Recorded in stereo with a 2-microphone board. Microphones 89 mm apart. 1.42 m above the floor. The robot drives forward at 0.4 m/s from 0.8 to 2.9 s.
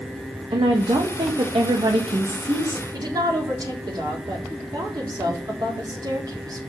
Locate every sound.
0.5 s a woman speaking: 85° right, 1.6 m; by 2.8 s 70° right (ahead or behind), 1.7 m
2.9 s a woman speaking: 45° right (ahead or behind), 4 m